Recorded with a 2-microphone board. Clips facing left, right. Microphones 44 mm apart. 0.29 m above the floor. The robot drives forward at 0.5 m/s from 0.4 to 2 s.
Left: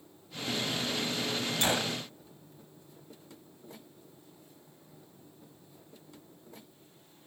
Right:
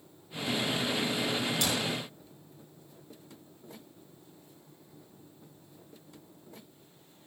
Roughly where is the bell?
I don't hear a bell.